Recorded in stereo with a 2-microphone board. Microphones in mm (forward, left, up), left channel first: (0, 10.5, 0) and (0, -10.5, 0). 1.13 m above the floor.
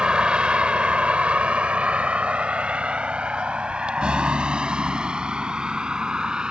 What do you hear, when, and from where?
0.0 s a vehicle: 55° right (ahead or behind); by 6.5 s 40° right (ahead or behind)